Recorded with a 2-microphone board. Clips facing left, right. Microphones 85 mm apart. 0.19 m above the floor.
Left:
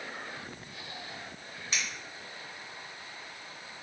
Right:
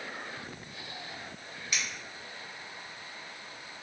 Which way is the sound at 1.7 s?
30° left (ahead or behind).